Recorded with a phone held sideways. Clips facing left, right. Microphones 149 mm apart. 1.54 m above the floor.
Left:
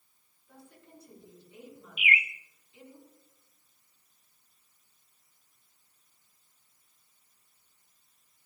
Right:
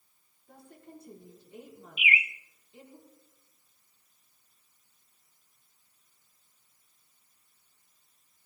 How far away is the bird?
About 1.1 m.